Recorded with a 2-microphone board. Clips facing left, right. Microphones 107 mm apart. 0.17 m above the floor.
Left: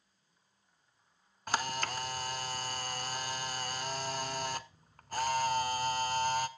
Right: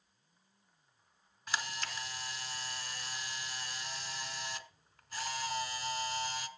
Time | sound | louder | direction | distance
1.5 | a camera shutter | left 6 dB | 45° left (ahead or behind) | 0.7 m